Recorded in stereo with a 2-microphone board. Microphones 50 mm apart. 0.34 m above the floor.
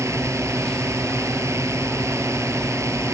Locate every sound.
0.0 s a drone: 80° right